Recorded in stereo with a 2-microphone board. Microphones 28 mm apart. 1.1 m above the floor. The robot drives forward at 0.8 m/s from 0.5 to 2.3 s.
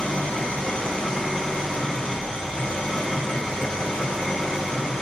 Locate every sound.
0.0 s an engine running: 40° left (ahead or behind), 1.8 m; by 5.0 s 20° left (ahead or behind), 3 m